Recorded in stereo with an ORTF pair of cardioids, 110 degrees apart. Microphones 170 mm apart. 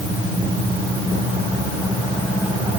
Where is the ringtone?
No ringtone in this recording.